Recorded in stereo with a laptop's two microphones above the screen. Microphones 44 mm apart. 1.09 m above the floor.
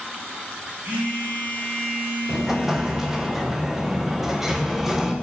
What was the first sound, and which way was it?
A phone buzzing, 55° right (ahead or behind).